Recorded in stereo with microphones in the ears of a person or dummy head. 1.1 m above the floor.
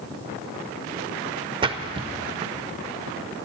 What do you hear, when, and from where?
1.6 s a splash: 25° right (ahead or behind), 0.5 m